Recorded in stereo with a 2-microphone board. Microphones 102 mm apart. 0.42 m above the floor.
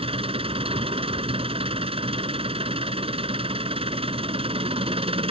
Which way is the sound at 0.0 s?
65° right (ahead or behind).